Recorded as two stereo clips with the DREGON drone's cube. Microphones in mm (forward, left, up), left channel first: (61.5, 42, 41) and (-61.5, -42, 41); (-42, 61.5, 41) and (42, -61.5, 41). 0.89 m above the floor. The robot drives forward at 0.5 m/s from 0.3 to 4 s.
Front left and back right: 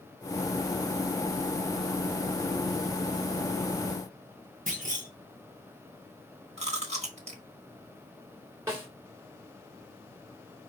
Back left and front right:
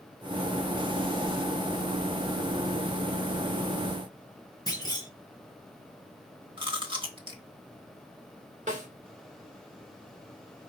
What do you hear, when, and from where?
4.7 s a clunk: 170° right, 1.1 m
6.6 s chewing: 110° right, 1.3 m
8.7 s a snare drum: 75° right, 1.4 m